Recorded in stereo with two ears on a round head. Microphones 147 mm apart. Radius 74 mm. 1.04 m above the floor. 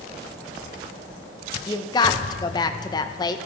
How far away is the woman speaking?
About 0.6 m.